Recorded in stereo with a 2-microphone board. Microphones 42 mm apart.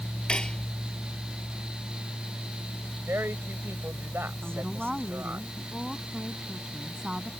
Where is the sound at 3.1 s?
80° right.